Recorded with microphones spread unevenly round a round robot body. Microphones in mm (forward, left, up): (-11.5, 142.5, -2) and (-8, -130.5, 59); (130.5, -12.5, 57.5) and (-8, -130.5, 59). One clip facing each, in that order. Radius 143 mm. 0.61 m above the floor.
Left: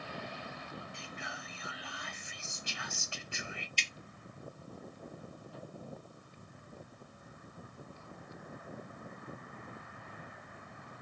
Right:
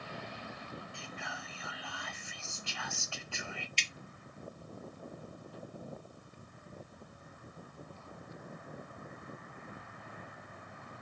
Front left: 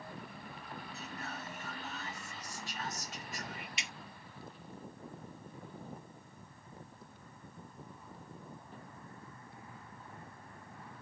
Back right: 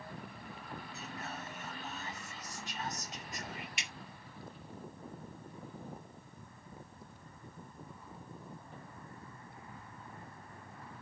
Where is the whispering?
150° left, 1.1 m.